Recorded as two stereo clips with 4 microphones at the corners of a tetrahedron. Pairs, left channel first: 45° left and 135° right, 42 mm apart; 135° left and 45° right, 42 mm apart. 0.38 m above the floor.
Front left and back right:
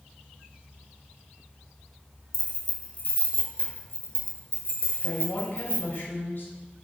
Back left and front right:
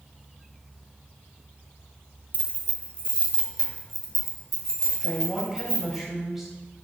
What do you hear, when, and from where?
2.3 s keys jangling: 10° right, 1.1 m; by 6.0 s 70° left, 2.0 m
5.0 s a woman speaking: 40° left, 2.0 m